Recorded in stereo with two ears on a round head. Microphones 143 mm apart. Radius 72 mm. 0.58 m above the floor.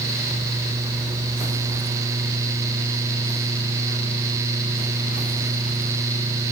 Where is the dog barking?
No dog barking in this recording.